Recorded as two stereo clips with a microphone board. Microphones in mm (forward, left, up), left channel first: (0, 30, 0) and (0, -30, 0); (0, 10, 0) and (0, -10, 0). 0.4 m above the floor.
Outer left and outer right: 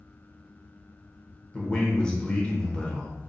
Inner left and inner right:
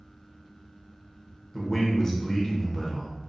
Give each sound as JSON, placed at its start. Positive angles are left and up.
{"t": 1.5, "sound": "a man speaking", "side_deg": 20, "distance_m": 1.0}